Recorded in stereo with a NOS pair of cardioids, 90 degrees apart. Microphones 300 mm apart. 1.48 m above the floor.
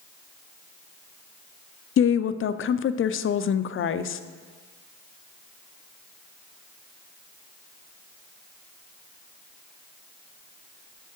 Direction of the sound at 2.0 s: 45° left.